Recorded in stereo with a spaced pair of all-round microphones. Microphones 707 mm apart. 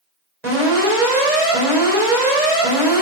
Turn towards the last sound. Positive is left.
turn(degrees=-70)  # may be behind; listen again after turning